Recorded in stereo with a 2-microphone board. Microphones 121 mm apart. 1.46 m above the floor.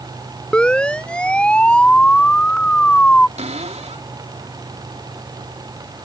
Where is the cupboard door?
65° right (ahead or behind).